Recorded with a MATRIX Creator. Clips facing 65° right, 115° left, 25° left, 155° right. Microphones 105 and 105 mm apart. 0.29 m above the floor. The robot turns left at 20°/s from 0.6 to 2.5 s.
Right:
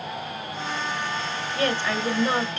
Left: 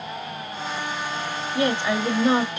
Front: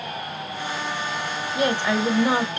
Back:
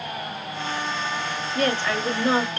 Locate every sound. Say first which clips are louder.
1.6 s a woman speaking: left 3 dB, front 2 dB; 75° left, 0.9 m; by 2.6 s 55° left, 0.9 m